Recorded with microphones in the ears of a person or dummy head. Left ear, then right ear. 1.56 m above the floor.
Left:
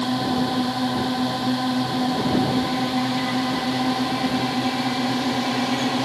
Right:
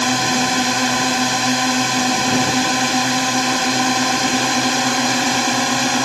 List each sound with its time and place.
0.0 s a drone: 65° right (ahead or behind)